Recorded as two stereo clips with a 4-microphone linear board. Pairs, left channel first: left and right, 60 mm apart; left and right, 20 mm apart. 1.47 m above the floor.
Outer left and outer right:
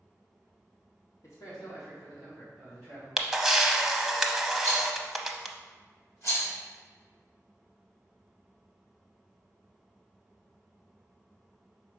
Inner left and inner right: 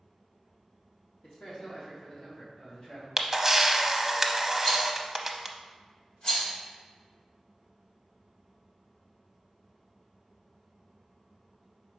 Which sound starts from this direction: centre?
A camera shutter, at 3.2 s.